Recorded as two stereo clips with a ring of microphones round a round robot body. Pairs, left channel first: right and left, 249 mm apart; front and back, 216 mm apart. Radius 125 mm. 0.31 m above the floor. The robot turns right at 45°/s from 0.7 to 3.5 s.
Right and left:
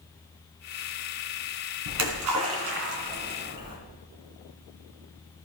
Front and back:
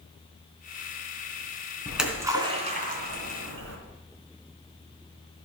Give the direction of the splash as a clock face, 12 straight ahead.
9 o'clock.